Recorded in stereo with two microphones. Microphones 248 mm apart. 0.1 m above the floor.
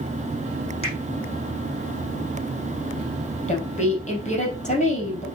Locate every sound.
0.8 s a finger snap: 25° left (ahead or behind), 5 m
3.5 s a woman speaking: 30° left (ahead or behind), 3 m